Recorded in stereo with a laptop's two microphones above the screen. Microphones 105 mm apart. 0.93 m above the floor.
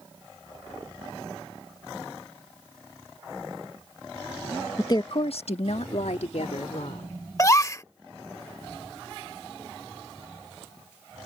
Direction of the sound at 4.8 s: 25° left (ahead or behind).